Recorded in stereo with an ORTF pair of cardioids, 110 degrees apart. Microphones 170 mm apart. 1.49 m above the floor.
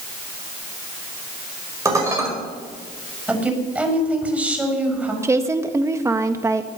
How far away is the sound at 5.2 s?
About 1.6 m.